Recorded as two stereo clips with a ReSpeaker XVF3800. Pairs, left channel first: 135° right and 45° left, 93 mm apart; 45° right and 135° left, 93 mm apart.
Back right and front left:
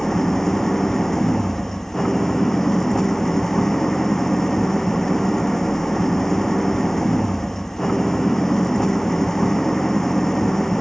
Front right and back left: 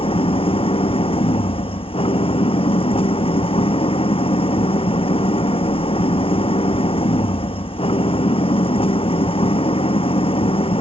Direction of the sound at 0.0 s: 50° right.